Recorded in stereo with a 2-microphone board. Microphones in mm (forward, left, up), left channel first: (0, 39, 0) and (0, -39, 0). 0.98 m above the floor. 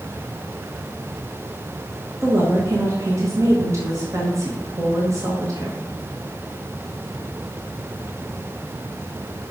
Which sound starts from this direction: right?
A woman speaking, at 2.2 s.